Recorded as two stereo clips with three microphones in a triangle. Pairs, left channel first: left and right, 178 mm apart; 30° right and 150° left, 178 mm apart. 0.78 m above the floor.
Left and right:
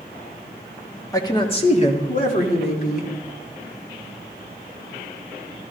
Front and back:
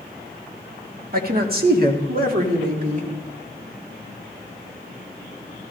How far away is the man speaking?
About 1.5 m.